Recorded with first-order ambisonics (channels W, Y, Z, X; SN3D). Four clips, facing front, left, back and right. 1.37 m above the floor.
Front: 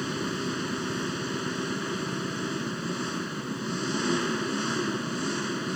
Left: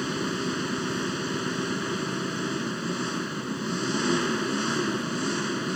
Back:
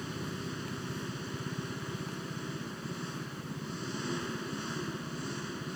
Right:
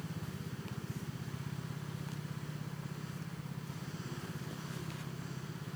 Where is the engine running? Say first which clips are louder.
Left 16 dB, front 9 dB; 60° left.